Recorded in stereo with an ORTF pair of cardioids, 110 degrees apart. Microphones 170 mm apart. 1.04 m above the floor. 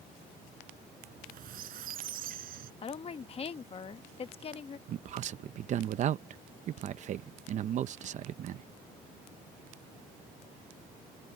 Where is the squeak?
60° right.